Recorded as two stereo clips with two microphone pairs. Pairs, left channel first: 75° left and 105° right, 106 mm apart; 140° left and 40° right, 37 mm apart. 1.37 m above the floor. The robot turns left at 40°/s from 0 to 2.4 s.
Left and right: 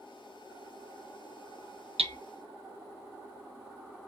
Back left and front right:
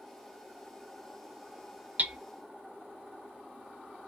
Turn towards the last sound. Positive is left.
turn(degrees=-100)